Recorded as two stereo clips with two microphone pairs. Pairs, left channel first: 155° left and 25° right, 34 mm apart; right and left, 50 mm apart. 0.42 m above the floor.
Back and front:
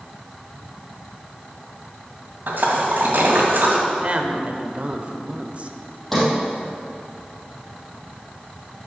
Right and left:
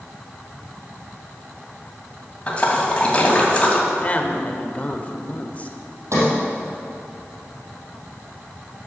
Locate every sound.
2.5 s a splash: 25° right, 2.5 m
3.9 s a woman speaking: 45° right, 1.1 m
6.1 s a sliding door: 70° left, 4 m